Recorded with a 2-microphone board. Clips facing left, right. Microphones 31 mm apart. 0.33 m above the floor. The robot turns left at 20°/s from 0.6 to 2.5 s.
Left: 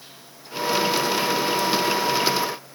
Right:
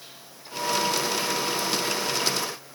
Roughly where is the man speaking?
I don't hear a man speaking.